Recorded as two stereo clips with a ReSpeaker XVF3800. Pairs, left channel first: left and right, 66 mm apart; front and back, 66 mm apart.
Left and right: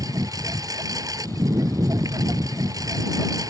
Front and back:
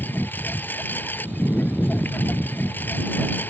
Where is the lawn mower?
60° right.